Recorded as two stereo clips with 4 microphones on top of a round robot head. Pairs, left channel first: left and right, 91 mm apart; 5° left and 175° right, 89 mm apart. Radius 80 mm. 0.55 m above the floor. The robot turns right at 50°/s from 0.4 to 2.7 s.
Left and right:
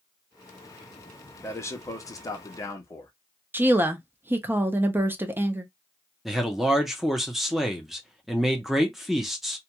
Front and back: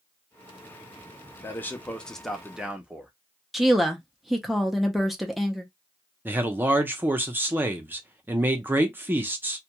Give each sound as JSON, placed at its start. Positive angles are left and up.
{"t": 1.4, "sound": "a man speaking", "azimuth_deg": 45, "distance_m": 0.8}
{"t": 3.5, "sound": "a woman speaking", "azimuth_deg": -90, "distance_m": 0.6}
{"t": 6.2, "sound": "a man speaking", "azimuth_deg": -175, "distance_m": 0.7}